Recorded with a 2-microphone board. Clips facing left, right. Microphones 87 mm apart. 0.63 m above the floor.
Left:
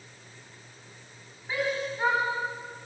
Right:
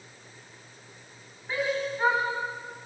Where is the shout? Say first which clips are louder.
Right 1 dB; 5° left (ahead or behind), 6 m.